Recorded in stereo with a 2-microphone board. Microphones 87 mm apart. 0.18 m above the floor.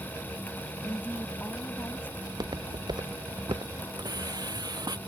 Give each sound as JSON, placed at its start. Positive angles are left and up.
{"t": 0.8, "sound": "a woman speaking", "side_deg": 25}
{"t": 2.2, "sound": "footsteps", "side_deg": -55}
{"t": 4.0, "sound": "a hiss", "side_deg": -50}